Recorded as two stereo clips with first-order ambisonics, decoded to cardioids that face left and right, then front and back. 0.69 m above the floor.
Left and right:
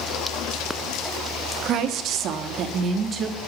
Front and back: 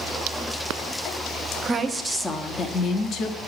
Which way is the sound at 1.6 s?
115° right.